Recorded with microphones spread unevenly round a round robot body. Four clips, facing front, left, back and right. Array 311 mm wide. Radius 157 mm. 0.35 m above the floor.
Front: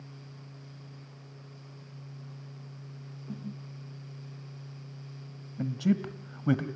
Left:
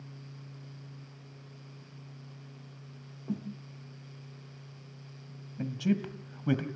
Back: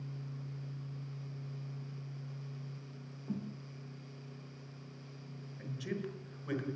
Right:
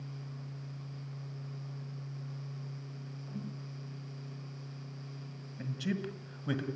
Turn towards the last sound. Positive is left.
turn(degrees=15)